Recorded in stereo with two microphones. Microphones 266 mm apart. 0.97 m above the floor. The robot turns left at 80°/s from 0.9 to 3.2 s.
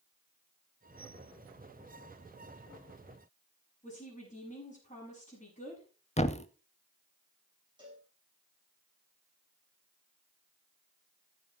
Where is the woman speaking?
25° left (ahead or behind), 7.5 m.